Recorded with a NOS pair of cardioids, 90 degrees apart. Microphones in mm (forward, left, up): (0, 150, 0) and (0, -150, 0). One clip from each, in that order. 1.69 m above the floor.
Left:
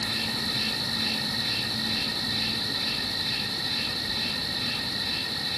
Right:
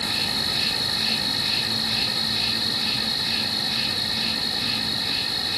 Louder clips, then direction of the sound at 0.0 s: Right 4 dB; 25° right.